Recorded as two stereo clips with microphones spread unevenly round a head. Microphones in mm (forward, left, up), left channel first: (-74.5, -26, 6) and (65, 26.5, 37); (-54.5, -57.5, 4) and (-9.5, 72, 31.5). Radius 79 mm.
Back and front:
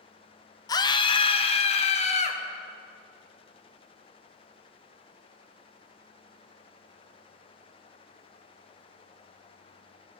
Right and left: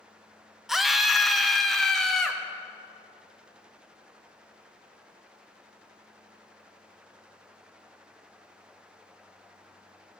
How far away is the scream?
About 0.8 m.